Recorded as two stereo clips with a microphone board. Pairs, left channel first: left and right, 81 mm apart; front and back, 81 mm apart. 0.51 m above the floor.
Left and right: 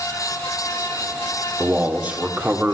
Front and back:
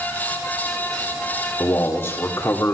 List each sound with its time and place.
1.6 s a man speaking: 30° right, 1.5 m